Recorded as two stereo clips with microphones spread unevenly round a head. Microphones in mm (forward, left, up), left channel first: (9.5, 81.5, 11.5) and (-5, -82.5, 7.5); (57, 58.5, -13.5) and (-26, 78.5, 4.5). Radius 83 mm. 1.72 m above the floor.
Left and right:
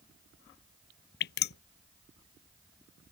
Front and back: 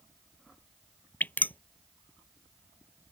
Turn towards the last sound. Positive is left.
turn(degrees=60)